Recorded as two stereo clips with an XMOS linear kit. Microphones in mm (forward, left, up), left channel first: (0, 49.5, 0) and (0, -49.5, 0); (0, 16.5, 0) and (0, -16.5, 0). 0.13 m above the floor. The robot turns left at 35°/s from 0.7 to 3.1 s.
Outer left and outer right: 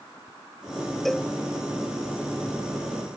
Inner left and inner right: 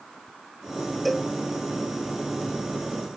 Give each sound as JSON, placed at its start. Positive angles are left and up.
{"t": 1.1, "sound": "a cowbell", "side_deg": 5}